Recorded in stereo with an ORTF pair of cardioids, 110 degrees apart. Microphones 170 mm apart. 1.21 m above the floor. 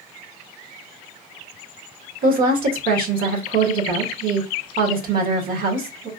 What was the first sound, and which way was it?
A woman speaking, 60° right.